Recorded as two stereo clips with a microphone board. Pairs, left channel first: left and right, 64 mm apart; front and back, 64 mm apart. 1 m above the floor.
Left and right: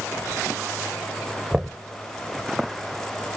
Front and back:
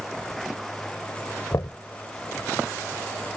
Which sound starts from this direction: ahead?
Knocking, at 1.5 s.